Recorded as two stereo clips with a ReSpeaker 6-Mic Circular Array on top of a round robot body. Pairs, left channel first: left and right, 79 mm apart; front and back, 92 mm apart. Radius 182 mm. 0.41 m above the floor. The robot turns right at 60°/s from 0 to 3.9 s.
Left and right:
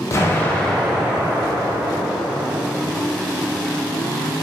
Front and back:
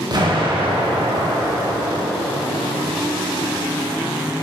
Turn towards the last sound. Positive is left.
turn(degrees=5)